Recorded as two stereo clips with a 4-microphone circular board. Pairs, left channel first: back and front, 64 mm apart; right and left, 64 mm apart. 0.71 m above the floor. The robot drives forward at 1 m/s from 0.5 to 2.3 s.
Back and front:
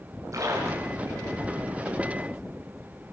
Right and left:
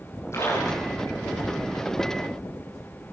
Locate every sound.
0.3 s a splash: 40° right, 9.5 m; by 1.4 s 45° right, 8.5 m